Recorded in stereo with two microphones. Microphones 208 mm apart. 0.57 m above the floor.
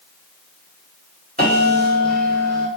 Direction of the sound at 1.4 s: 45° right (ahead or behind).